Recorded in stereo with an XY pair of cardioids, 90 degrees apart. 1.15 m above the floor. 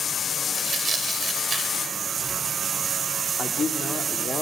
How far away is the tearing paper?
About 2 m.